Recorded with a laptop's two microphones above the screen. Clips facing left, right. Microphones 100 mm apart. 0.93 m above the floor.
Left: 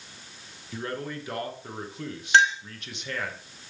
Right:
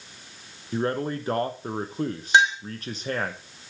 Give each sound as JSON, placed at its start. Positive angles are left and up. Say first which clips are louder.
{"t": 0.7, "sound": "a man speaking", "louder": "right 7 dB", "side_deg": -40, "distance_m": 0.5}
{"t": 2.3, "sound": "a clink", "louder": "right 1 dB", "side_deg": -15, "distance_m": 1.1}